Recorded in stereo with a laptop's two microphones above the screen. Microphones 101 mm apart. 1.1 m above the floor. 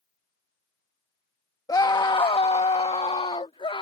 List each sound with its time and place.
1.7 s a scream: 35° left (ahead or behind); by 3.8 s 60° left (ahead or behind)